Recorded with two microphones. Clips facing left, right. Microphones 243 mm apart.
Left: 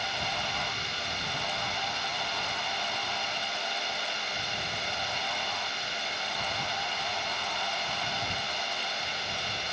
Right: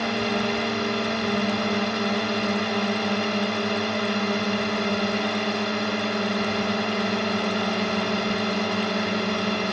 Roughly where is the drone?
Right.